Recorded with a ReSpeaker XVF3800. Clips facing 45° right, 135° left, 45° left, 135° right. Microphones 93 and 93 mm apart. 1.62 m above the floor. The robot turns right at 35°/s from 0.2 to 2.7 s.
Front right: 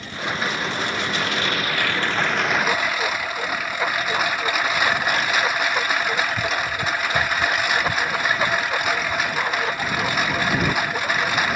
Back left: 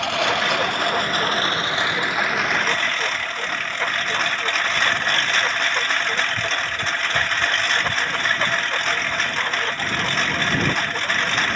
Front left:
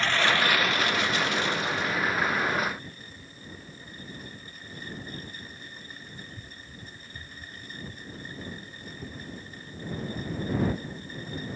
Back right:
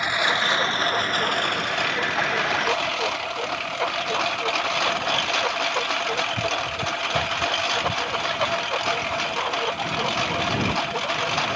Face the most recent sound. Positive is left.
turn(degrees=-125)